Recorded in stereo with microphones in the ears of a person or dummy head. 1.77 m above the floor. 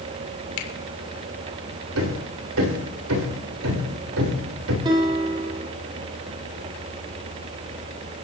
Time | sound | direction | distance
0.6 | a finger snap | 70° left (ahead or behind) | 2.5 m
1.9 | hammering | 75° right (ahead or behind) | 3 m
4.8 | a guitar | 25° right (ahead or behind) | 2.0 m